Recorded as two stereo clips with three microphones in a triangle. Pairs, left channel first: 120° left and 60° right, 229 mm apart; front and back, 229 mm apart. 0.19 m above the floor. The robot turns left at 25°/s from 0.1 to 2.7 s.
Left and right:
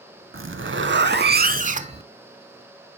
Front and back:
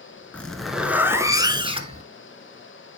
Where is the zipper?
85° right, 0.6 m; by 2.0 s 125° right, 0.6 m.